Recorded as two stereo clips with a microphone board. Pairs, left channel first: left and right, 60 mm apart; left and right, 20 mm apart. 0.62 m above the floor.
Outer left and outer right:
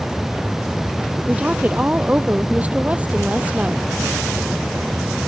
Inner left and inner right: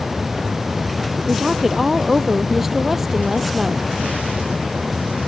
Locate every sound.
1.3 s a woman speaking: 25° right (ahead or behind)